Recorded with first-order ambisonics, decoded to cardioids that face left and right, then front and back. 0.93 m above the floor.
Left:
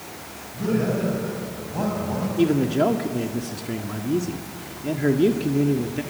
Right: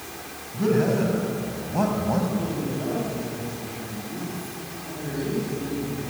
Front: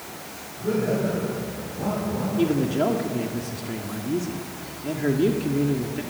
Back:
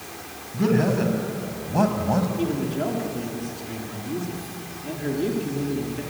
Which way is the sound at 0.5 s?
170° right.